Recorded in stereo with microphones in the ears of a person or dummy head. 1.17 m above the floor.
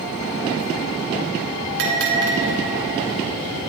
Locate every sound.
1.8 s a bell: 70° right (ahead or behind), 3 m